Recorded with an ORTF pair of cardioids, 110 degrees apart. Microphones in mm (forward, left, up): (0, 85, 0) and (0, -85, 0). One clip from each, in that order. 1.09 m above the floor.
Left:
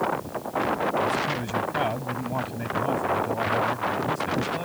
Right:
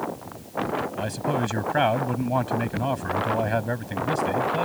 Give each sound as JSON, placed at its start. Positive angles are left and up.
{"t": 1.0, "sound": "a man speaking", "azimuth_deg": -40}